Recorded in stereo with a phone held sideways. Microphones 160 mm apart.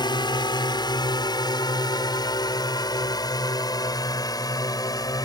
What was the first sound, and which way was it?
A drone, 25° left (ahead or behind).